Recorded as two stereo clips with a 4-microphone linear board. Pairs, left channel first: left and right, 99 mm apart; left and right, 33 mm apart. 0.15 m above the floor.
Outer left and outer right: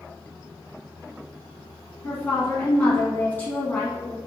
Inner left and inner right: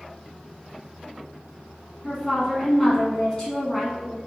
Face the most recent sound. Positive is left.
turn(degrees=15)  # may be behind; listen again after turning